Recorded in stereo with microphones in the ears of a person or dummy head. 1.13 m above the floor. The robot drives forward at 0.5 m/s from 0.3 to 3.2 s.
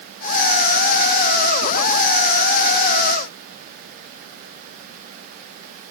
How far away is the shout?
No shout in this recording.